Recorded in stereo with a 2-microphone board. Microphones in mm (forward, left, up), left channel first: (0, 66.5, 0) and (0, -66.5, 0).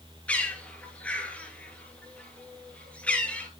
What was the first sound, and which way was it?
A bird, 10° left (ahead or behind).